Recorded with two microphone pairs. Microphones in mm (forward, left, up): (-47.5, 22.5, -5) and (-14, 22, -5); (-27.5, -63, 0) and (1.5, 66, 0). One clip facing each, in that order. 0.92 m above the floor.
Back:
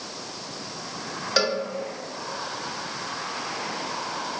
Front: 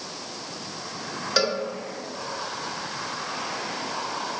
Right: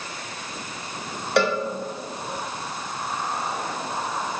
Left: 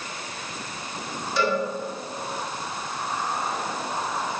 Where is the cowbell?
100° right, 1.3 m.